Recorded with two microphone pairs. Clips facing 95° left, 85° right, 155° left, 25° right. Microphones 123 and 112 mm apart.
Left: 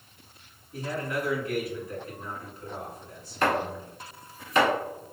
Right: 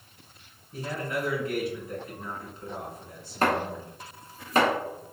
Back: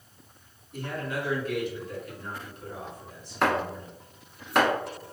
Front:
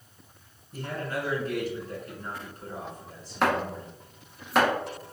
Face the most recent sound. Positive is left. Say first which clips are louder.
# even, even
turn(degrees=-110)